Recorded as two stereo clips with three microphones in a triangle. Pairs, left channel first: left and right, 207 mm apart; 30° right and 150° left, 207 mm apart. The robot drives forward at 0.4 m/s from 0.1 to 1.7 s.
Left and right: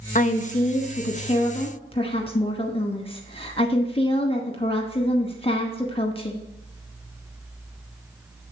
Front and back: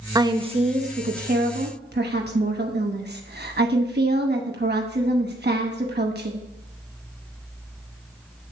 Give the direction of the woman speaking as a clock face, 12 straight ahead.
9 o'clock.